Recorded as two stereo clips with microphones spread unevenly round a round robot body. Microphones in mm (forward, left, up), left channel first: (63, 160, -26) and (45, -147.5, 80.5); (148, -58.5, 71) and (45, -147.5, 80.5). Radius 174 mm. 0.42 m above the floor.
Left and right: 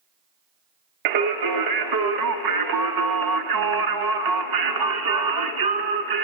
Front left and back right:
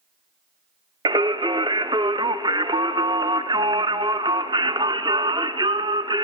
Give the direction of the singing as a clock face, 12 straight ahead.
3 o'clock.